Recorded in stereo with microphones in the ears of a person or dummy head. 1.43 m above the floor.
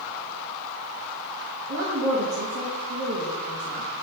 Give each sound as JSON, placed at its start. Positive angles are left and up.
{"t": 1.7, "sound": "a woman speaking", "side_deg": -65, "distance_m": 1.2}